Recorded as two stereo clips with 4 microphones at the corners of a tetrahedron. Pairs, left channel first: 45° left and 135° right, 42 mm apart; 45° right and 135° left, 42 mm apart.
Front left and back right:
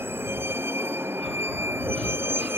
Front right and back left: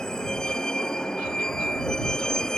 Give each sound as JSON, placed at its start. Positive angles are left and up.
{"t": 0.0, "sound": "a vehicle", "azimuth_deg": -120}